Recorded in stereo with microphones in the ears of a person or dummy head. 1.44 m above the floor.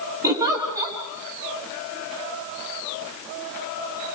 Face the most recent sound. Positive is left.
turn(degrees=-10)  # may be behind; listen again after turning